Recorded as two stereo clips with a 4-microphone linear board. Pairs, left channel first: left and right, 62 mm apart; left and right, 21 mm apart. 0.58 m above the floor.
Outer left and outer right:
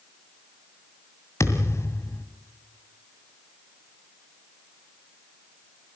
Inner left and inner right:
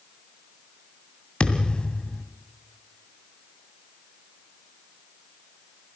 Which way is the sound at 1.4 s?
50° left (ahead or behind).